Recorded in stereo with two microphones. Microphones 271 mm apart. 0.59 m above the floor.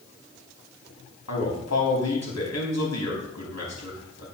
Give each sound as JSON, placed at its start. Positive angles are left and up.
{"t": 1.3, "sound": "a man speaking", "side_deg": 75, "distance_m": 4.5}